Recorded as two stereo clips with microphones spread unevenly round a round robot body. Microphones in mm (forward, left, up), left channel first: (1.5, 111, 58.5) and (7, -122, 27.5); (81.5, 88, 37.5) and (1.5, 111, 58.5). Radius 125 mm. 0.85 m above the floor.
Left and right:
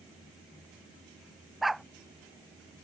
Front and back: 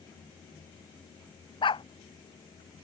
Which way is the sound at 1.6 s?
Straight ahead.